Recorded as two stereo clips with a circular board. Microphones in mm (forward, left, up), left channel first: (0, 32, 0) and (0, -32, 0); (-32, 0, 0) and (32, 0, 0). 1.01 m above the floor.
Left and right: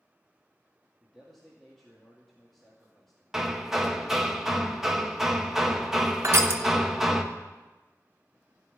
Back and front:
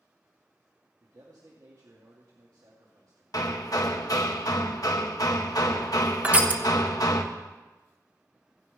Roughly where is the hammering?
Behind.